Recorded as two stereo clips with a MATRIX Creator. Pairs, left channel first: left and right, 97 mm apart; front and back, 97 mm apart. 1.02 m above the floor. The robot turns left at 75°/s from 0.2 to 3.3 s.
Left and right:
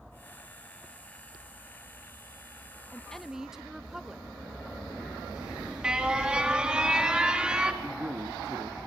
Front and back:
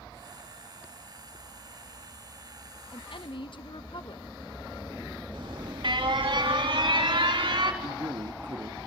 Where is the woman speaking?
25° left, 0.9 m; by 4.3 s 5° right, 0.9 m.